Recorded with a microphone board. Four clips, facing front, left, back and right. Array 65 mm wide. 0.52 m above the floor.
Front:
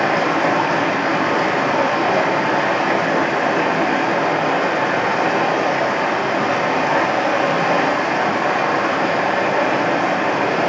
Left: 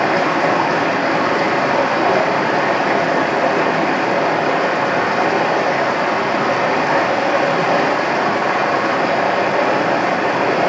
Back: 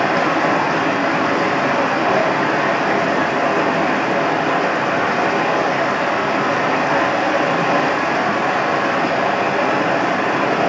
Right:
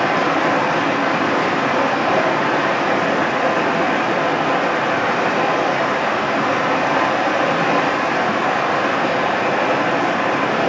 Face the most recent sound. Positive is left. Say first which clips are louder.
# left 1 dB, back 1 dB
turn(degrees=85)